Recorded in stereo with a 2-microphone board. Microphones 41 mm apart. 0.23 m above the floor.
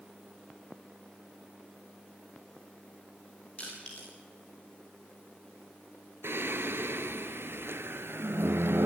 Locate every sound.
3.6 s crushing: 30° left (ahead or behind), 7 m
6.2 s singing: 85° right, 0.8 m